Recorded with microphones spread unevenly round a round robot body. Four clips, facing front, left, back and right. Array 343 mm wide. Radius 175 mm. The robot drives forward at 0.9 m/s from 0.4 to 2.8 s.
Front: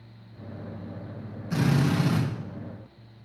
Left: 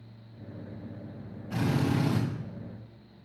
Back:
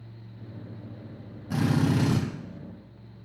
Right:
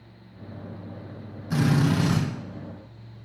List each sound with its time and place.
1.5 s a drill: 145° right, 3.5 m; by 2.2 s 150° right, 4 m